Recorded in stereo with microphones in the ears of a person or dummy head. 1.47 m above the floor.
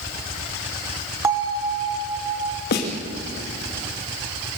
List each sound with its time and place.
1.2 s a bell: 15° right (ahead or behind), 1.2 m
2.7 s a snare drum: 55° left (ahead or behind), 2.5 m